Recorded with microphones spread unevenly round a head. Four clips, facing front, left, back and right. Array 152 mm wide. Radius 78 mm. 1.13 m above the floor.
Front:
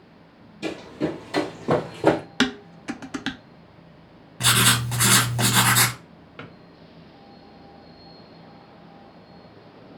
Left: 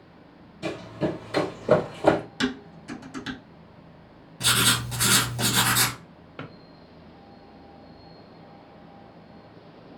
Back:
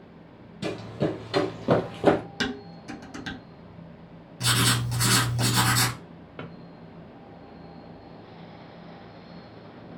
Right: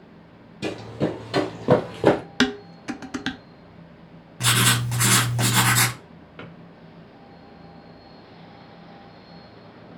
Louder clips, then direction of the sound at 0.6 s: Right 2 dB, front 1 dB; 125° right.